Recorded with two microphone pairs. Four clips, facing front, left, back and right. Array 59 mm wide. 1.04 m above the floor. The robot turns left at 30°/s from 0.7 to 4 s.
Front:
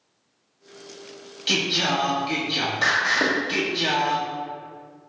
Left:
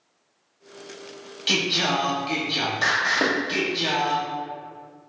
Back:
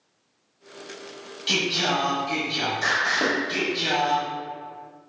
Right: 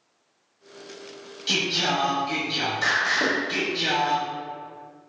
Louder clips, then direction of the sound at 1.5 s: Left 1 dB, front 1 dB; 90° left.